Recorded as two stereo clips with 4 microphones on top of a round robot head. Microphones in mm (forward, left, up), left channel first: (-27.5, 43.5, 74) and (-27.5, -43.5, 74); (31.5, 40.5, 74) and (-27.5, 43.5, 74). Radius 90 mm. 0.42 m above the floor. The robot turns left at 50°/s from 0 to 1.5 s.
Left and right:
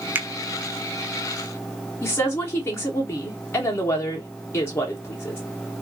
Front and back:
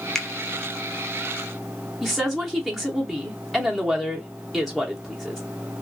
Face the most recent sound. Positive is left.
turn(degrees=85)